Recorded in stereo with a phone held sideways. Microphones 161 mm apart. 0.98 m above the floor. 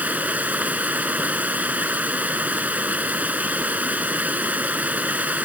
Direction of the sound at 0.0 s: 10° right (ahead or behind).